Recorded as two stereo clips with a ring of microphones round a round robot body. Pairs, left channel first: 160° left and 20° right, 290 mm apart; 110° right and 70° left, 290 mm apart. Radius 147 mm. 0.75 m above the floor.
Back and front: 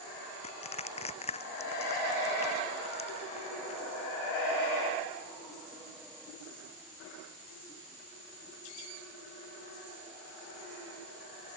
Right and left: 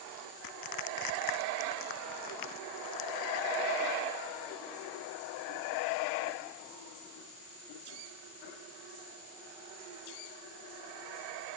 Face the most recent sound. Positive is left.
turn(degrees=-130)